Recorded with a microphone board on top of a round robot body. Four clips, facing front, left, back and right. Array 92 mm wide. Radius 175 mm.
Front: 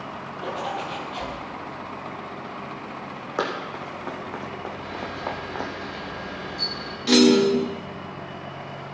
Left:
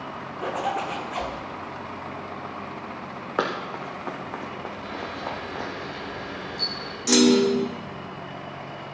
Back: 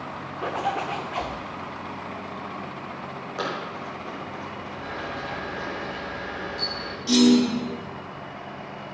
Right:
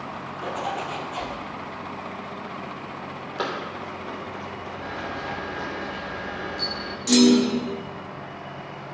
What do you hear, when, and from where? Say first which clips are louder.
0.4 s a zipper: left 2 dB, back 3 dB; 145° left, 1.8 m
3.4 s running footsteps: left 3 dB, front 3 dB; 65° left, 1.9 m; by 5.7 s 15° left, 1.8 m
4.8 s a camera shutter: right 3 dB, back 1 dB; 135° right, 2 m
7.1 s a clunk: right 1 dB, front 2 dB; 25° left, 1.3 m